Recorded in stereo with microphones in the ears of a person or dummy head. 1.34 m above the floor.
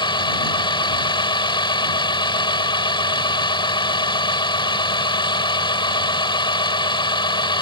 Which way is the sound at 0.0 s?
25° left (ahead or behind).